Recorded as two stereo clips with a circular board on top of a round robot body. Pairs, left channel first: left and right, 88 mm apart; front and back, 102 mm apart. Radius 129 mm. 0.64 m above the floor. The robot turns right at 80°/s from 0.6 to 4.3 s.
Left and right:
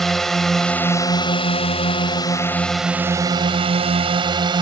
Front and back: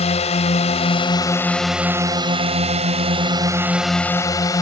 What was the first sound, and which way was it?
A drone, 5° left.